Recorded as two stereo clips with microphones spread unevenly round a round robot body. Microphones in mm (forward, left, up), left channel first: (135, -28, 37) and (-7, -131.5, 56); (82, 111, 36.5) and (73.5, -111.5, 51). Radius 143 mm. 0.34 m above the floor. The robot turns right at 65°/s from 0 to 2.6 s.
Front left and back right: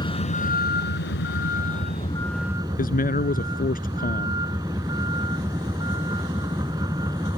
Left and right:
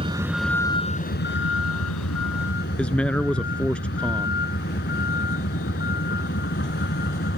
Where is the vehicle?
30° right; by 7.4 s 140° left.